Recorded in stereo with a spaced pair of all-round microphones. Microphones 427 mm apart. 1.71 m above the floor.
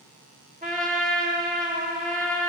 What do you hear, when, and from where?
0.6 s a trumpet: 20° right (ahead or behind), 1.7 m